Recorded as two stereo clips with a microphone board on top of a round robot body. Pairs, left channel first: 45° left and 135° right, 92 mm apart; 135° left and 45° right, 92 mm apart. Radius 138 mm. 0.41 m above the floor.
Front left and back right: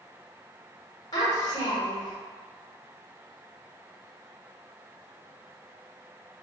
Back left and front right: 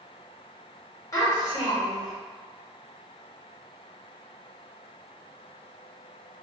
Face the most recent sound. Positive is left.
turn(degrees=85)